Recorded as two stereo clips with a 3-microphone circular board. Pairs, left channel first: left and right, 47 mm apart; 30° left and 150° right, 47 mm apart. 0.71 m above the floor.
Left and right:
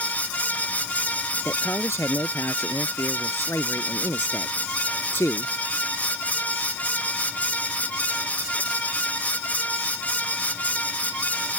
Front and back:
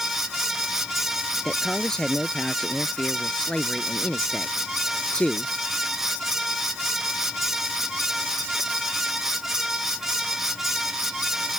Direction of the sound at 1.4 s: 105° left.